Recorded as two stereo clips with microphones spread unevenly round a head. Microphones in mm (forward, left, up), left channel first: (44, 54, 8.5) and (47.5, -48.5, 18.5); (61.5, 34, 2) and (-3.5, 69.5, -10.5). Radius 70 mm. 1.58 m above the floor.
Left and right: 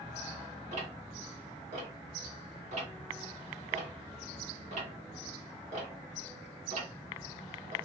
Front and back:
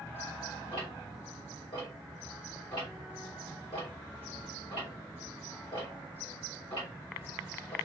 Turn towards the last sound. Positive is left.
turn(degrees=-85)